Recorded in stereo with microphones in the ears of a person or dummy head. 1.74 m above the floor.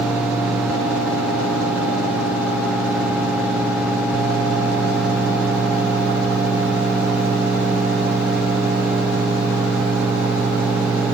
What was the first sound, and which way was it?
Only background noise.